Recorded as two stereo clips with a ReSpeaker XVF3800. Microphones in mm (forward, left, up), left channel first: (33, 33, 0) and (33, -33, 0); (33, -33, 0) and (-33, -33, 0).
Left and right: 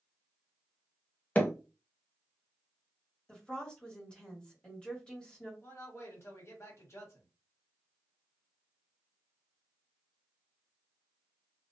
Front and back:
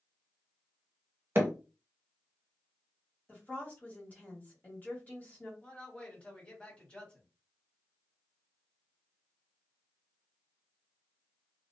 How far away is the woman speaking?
About 1.4 m.